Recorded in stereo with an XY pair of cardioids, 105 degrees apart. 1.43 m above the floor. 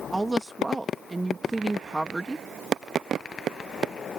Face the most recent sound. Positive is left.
turn(degrees=-10)